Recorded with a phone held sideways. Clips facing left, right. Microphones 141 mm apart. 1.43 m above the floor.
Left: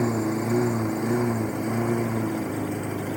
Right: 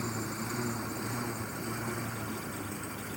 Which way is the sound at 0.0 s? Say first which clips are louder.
Left 13 dB; 65° left (ahead or behind).